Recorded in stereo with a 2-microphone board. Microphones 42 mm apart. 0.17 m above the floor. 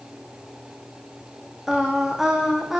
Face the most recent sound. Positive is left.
turn(degrees=-10)  # may be behind; listen again after turning